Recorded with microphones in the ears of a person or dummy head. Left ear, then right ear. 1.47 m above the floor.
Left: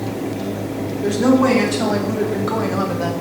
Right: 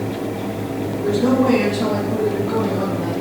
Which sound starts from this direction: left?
A woman speaking, at 1.0 s.